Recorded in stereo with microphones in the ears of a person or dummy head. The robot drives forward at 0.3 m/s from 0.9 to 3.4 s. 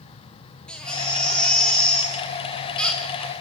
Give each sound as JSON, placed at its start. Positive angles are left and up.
{"t": 0.7, "sound": "a baby crying", "side_deg": 5, "distance_m": 3.0}